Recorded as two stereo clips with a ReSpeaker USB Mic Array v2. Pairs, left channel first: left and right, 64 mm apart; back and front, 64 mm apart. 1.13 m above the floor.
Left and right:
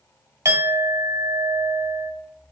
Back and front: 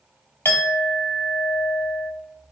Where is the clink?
120° right, 1.2 m.